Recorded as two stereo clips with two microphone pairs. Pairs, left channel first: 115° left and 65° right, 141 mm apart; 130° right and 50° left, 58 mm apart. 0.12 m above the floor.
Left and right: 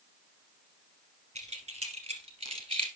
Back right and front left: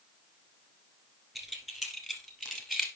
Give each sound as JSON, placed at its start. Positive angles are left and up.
{"t": 1.4, "sound": "keys jangling", "azimuth_deg": -30, "distance_m": 2.5}